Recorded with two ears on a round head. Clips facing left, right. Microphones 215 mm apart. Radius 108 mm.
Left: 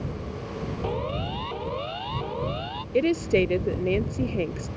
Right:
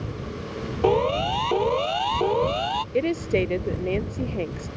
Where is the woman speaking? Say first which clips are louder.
Left 2 dB; 10° left (ahead or behind).